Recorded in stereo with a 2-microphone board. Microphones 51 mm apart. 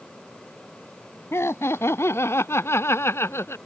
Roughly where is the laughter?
Left.